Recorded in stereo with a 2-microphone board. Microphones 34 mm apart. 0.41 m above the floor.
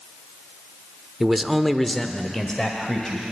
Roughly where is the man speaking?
Centre.